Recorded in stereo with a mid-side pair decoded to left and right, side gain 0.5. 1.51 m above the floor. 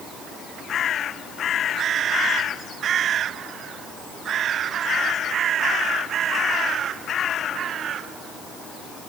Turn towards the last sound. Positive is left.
No sound to turn to.